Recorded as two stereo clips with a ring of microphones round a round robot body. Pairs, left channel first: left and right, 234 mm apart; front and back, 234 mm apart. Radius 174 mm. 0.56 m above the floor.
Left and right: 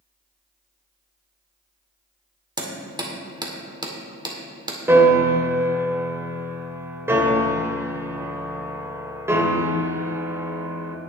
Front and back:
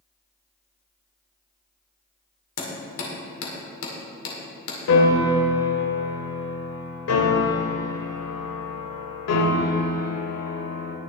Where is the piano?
10° right, 1.3 m.